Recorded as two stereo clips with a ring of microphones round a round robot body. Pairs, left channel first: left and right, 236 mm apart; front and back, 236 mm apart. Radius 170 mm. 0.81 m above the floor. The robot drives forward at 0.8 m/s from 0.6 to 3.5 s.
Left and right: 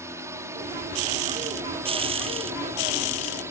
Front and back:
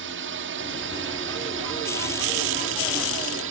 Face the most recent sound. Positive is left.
turn(degrees=-170)